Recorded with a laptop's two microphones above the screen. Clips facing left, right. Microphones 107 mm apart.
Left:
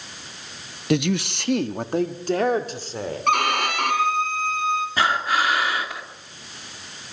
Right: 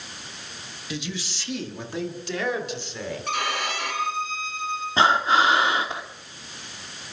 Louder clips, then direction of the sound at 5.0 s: Right 6 dB; 25° right (ahead or behind).